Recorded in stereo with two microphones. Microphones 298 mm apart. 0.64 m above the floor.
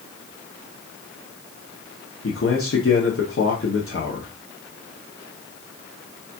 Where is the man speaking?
50° left (ahead or behind), 0.8 m.